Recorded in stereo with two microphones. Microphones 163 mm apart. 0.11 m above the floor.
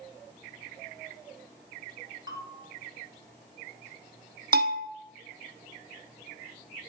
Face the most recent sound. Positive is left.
turn(degrees=-70)  # may be behind; listen again after turning